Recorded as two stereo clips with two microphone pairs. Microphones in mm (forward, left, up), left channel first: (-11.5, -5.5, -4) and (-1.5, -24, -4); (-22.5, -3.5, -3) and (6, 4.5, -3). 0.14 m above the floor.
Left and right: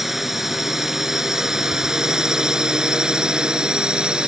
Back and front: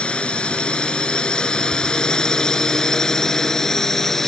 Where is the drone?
135° right; by 4.3 s 90° right.